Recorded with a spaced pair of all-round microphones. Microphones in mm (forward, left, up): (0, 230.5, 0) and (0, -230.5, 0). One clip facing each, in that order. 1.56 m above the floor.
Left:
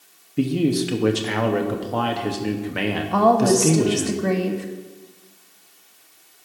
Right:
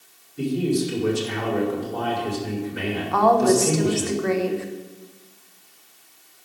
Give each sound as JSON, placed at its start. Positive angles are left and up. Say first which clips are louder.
{"t": 0.4, "sound": "a man speaking", "louder": "left 3 dB", "side_deg": 80, "distance_m": 1.0}
{"t": 3.1, "sound": "a woman speaking", "louder": "left 1 dB", "side_deg": 50, "distance_m": 0.9}